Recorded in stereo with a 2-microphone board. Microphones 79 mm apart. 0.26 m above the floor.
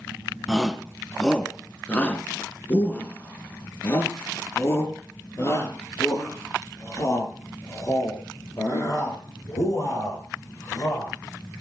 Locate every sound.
0.5 s a shout: centre (ahead or behind), 2.0 m; by 11.1 s 45° left (ahead or behind), 9 m